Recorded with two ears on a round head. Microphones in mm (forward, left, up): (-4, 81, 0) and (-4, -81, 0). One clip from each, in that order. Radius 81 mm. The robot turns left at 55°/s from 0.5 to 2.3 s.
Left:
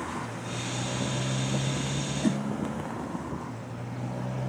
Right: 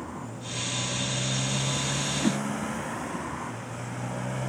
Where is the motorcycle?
50° left; by 4.5 s 50° right.